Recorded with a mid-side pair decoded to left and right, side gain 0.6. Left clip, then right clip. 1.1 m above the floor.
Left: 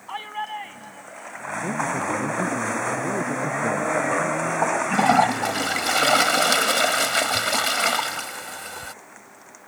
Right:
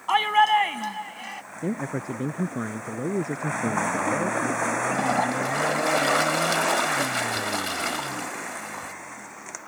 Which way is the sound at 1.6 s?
25° right.